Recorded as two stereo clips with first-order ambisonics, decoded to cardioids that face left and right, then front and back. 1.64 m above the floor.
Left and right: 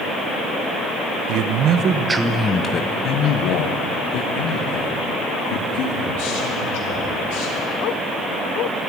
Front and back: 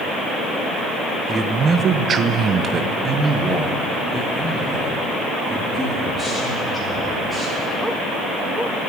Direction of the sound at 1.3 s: 110° right.